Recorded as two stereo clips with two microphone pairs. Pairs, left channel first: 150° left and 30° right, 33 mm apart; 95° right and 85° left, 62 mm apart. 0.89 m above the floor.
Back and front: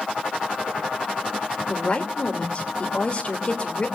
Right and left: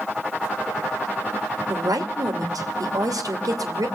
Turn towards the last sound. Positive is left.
turn(degrees=90)